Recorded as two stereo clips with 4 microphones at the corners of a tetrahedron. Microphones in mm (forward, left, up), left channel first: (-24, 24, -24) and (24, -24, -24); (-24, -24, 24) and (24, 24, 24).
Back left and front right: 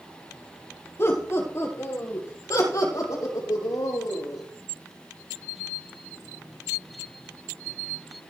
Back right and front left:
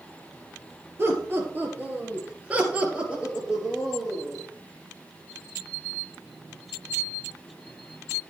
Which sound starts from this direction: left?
Laughter, at 1.0 s.